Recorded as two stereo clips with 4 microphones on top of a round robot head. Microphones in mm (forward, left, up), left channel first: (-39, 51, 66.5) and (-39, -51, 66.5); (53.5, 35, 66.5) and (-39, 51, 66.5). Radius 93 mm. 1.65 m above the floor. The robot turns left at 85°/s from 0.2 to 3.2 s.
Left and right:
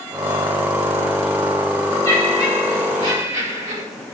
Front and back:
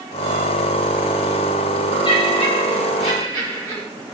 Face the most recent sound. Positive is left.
turn(degrees=-70)